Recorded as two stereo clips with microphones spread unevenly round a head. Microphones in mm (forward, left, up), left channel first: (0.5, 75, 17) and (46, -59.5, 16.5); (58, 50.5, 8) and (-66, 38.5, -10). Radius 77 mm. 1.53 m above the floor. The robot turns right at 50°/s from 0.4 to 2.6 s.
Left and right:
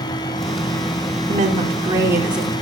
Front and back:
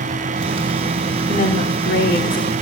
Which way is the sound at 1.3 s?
40° right.